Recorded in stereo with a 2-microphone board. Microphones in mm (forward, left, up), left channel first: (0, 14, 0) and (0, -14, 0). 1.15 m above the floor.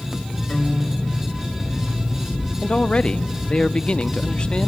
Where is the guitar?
35° left (ahead or behind), 4 m.